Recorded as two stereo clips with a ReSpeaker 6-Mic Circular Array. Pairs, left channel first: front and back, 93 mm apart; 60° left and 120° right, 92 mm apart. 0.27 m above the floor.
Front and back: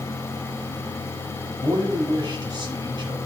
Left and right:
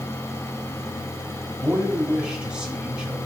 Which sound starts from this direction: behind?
A man speaking, at 1.6 s.